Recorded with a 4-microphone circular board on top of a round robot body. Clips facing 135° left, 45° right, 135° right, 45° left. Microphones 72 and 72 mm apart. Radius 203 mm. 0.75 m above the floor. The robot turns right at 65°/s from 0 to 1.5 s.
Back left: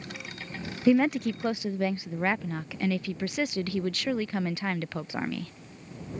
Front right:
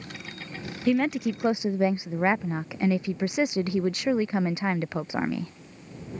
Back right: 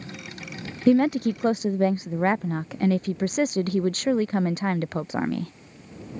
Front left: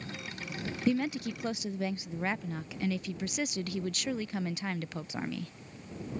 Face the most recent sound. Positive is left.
turn(degrees=-110)